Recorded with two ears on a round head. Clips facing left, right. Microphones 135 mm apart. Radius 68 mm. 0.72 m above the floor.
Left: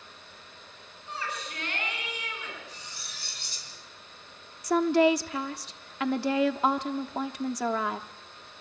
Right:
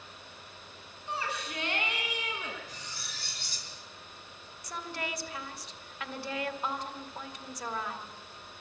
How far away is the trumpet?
No trumpet in this recording.